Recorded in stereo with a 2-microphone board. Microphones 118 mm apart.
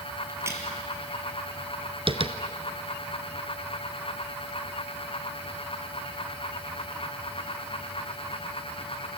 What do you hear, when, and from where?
0.3 s a crack: 20° right (ahead or behind), 3.5 m
2.1 s tapping: 50° right (ahead or behind), 1.1 m